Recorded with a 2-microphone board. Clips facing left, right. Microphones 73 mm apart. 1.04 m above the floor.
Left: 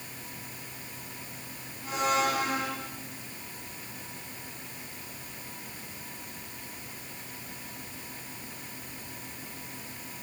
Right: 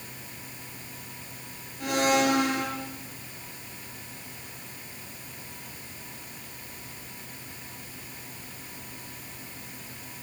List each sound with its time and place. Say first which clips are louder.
1.8 s a blender: right 4 dB; 85° right, 6.5 m